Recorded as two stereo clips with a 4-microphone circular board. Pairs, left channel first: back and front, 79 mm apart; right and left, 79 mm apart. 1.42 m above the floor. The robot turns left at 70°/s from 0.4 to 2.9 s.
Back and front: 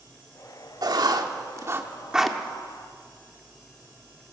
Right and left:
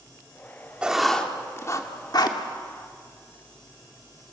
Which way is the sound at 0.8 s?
15° left.